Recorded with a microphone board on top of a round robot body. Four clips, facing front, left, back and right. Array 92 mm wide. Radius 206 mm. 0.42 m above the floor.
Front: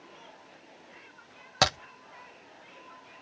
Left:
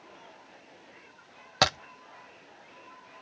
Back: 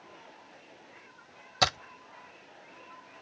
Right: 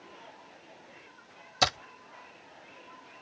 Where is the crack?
55° left, 0.6 m.